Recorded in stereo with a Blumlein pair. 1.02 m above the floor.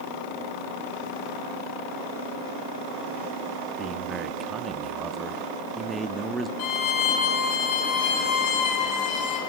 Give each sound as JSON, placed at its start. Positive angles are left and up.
{"t": 3.8, "sound": "a man speaking", "azimuth_deg": -20, "distance_m": 1.4}
{"t": 6.6, "sound": "a violin", "azimuth_deg": 40, "distance_m": 6.0}